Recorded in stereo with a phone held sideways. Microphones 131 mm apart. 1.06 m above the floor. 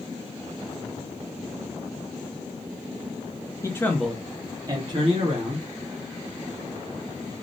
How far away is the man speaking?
About 0.6 m.